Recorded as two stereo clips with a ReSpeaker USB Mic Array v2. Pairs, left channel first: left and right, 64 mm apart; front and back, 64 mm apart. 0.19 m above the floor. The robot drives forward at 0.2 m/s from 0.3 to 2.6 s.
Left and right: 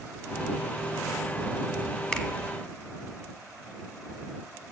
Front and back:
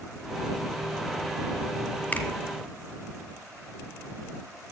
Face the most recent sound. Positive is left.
turn(degrees=30)